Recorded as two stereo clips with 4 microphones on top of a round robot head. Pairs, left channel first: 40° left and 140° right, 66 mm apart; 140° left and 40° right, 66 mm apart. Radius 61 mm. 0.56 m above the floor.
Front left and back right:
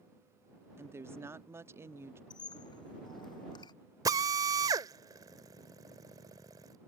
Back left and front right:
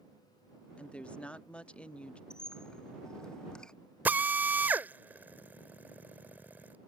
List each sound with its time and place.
0.8 s a woman speaking: 155° right
2.3 s a squeak: 60° left
4.0 s a drill: 105° right